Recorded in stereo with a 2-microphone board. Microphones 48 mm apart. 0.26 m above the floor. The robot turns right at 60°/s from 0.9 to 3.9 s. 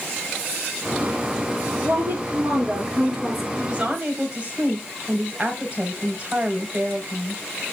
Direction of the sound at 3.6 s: 25° right (ahead or behind).